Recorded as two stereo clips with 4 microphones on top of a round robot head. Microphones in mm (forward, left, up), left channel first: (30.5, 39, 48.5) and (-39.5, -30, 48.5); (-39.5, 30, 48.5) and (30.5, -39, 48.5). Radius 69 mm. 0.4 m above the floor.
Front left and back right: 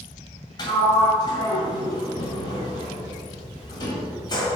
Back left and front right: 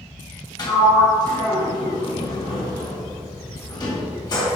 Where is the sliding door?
90° left, 1.9 m.